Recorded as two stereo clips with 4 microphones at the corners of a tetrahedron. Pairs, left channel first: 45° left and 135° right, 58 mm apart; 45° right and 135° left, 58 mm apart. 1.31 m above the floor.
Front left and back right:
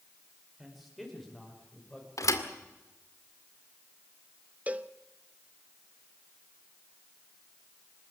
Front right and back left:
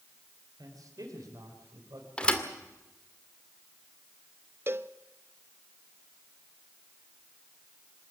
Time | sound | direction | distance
0.6 | a man speaking | 140° left | 5 m
2.2 | a thud | 30° left | 2 m
4.7 | a cowbell | 170° left | 0.7 m